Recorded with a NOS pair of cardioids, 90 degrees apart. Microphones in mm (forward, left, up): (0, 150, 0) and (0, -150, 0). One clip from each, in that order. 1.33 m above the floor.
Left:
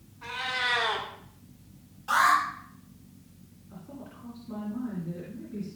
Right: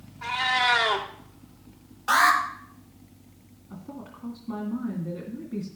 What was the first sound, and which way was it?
A cat meowing, 70° right.